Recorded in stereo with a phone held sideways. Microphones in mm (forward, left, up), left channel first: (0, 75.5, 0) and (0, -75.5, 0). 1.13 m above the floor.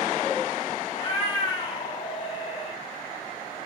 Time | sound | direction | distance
0.9 | a cat meowing | 35° left (ahead or behind) | 0.7 m